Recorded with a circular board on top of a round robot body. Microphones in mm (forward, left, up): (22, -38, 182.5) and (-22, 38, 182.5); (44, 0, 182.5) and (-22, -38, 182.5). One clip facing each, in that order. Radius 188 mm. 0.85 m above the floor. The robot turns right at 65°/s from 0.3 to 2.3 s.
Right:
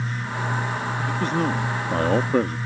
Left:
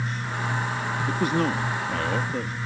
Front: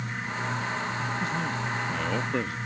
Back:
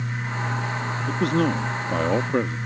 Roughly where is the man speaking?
Behind.